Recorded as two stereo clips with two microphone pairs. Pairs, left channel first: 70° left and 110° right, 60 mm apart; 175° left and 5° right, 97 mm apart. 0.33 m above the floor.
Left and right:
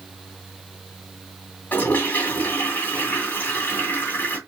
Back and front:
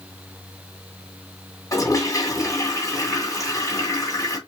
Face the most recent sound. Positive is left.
turn(degrees=125)